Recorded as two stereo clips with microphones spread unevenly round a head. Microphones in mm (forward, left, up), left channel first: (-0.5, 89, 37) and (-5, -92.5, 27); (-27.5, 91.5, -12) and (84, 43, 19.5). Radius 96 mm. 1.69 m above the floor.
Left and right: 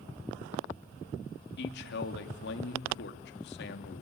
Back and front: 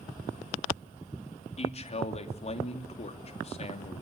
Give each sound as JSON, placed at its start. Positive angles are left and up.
{"t": 1.6, "sound": "a man speaking", "azimuth_deg": 120, "distance_m": 3.0}